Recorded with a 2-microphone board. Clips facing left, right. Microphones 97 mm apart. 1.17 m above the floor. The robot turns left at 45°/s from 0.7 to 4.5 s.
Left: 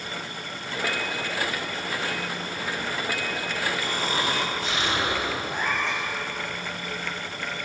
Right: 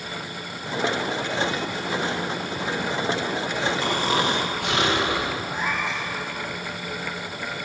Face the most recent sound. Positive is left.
turn(degrees=-10)  # may be behind; listen again after turning